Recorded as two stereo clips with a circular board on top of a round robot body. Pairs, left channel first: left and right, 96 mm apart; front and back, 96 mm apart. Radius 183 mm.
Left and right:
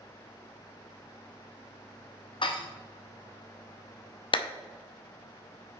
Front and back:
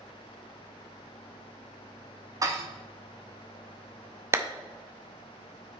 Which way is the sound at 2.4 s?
125° left.